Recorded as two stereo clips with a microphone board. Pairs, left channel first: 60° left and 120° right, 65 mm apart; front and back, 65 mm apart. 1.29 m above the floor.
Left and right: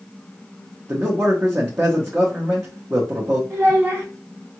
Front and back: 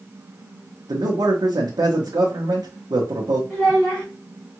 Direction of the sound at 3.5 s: 65° right.